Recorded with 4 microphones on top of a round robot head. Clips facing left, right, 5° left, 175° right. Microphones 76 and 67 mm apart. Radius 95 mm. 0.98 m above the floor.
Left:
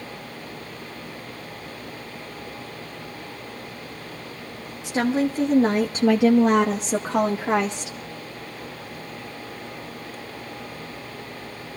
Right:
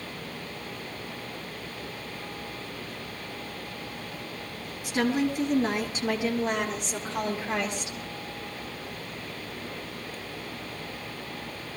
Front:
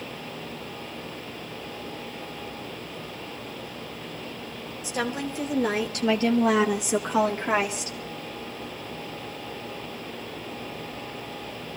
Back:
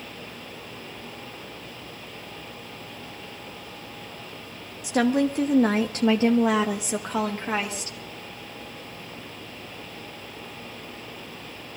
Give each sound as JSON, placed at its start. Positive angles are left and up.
{"t": 4.8, "sound": "a woman speaking", "azimuth_deg": 160, "distance_m": 1.7}